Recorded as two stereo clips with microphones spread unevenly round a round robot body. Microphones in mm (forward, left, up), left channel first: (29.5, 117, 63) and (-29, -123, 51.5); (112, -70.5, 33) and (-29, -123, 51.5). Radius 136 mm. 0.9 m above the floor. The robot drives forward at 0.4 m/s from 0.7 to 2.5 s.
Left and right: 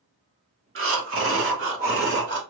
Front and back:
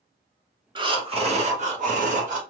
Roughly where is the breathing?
Right.